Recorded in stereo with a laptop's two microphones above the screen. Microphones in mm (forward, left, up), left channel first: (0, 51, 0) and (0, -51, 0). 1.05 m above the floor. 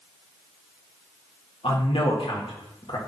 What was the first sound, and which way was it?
A man speaking, 65° left (ahead or behind).